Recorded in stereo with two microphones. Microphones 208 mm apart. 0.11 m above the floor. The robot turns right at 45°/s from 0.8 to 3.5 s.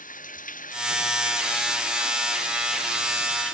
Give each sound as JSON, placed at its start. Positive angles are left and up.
{"t": 0.0, "sound": "running water", "azimuth_deg": 140}